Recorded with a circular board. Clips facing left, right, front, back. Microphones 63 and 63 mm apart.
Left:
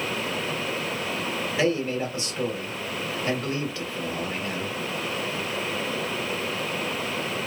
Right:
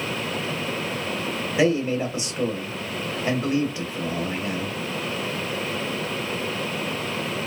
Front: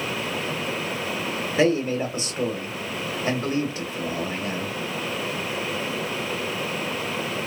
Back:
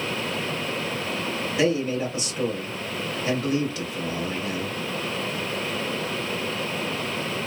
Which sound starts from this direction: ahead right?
A man speaking, at 1.6 s.